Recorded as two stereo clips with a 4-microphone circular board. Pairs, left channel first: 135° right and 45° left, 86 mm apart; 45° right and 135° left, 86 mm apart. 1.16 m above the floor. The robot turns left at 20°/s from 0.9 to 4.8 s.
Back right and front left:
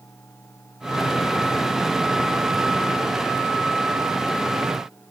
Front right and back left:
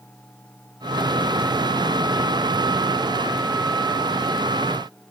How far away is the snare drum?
I don't hear a snare drum.